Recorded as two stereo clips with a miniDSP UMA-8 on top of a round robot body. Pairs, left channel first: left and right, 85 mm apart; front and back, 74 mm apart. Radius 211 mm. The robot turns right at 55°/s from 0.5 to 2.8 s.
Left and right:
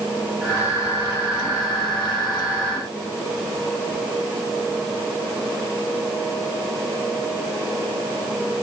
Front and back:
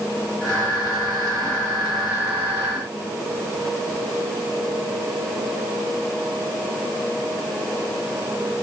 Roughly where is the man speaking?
No man speaking in this recording.